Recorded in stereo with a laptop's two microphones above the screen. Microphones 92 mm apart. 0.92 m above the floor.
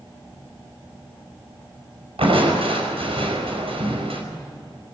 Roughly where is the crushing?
Right.